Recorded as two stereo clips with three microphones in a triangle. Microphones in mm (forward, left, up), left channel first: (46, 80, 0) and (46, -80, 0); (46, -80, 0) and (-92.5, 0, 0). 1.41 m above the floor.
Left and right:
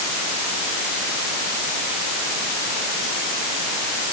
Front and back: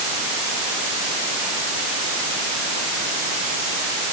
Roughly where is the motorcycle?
No motorcycle in this recording.